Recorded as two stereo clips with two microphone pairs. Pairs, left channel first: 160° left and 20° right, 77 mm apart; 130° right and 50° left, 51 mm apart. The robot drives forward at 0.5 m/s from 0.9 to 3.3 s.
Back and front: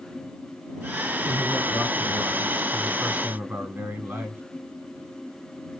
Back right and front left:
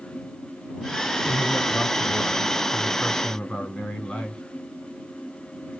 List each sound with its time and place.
1.2 s a man speaking: 35° right, 2.5 m; by 4.4 s 65° right, 1.8 m